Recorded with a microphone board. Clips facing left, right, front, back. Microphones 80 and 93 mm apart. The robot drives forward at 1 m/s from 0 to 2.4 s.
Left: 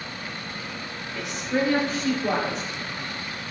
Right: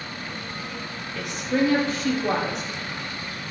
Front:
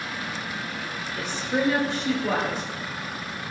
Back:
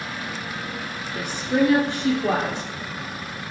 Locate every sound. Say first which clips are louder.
1.1 s a woman speaking: right 2 dB, back 5 dB; 175° left, 3 m; by 2.6 s straight behind, 4 m